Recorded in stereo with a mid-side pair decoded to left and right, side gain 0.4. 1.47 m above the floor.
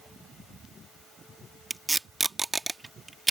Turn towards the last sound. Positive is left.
turn(degrees=-25)